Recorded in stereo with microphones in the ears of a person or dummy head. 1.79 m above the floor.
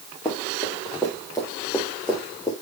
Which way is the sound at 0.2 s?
15° left (ahead or behind).